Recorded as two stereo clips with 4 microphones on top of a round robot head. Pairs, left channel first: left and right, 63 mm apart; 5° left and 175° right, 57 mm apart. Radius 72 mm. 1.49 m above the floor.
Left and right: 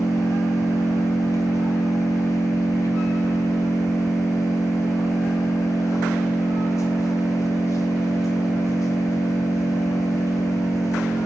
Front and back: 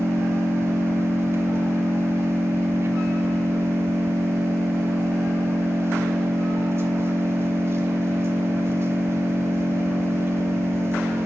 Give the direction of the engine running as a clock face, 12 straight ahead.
7 o'clock.